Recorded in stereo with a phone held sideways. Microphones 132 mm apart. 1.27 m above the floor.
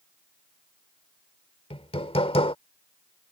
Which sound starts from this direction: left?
Hammering, at 1.7 s.